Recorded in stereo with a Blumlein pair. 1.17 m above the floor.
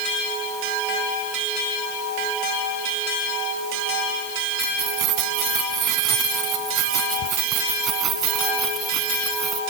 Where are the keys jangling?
40° right; by 9.6 s 20° right.